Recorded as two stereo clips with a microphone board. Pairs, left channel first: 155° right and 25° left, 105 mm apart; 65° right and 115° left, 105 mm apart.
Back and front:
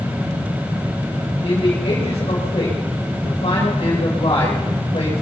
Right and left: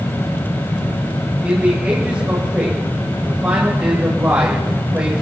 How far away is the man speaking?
About 4.5 m.